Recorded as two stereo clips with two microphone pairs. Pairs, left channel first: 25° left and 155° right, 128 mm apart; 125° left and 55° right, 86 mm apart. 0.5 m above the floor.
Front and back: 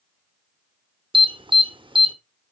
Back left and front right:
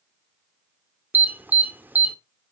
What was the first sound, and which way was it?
An alarm, 120° right.